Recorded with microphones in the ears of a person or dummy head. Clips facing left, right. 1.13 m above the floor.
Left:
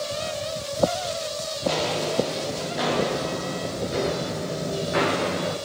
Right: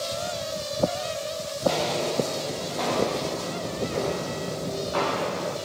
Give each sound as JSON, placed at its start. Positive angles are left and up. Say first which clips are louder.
{"t": 1.6, "sound": "footsteps", "louder": "even", "side_deg": 0, "distance_m": 8.0}